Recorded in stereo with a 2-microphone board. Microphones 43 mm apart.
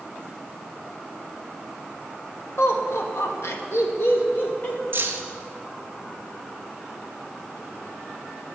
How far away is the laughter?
About 1.9 m.